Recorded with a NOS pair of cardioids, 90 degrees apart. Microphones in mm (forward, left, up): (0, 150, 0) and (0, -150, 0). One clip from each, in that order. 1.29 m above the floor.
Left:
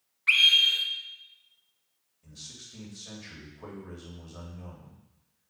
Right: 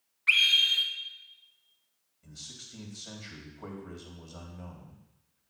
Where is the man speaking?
15° right, 3.5 m.